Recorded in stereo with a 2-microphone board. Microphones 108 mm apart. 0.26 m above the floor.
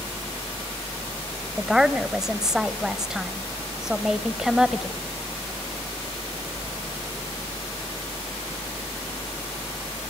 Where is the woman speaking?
5° right (ahead or behind), 1.2 m.